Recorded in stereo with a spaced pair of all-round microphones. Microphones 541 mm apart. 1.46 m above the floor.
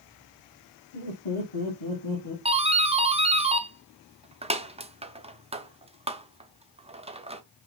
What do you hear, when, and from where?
0.9 s laughter: 70° left (ahead or behind), 2.5 m; by 2.4 s 50° left (ahead or behind), 1.7 m
2.5 s a doorbell: 10° right (ahead or behind), 0.6 m